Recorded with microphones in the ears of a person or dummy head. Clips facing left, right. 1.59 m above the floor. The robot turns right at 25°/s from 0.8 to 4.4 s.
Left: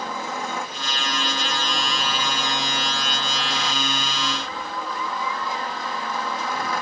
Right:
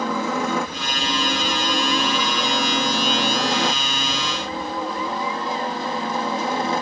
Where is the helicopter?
115° right; by 6.8 s 25° right.